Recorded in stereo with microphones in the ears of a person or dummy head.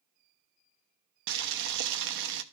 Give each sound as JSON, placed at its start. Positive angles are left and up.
{"t": 1.3, "sound": "boiling", "side_deg": -60, "distance_m": 0.7}